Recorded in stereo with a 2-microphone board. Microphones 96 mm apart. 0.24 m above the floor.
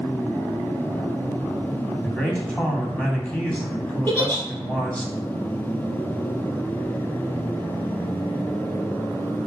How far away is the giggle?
About 3.5 m.